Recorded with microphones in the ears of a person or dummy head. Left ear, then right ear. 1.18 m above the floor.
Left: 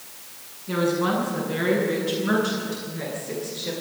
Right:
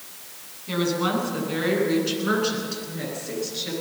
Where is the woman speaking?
50° right (ahead or behind), 9 m; by 3.7 s 60° right (ahead or behind), 13 m.